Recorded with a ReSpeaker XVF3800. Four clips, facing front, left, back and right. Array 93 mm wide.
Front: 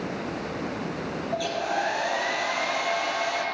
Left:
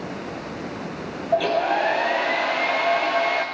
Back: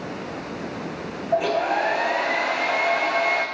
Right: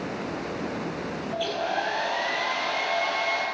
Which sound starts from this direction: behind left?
A hair dryer, at 1.3 s.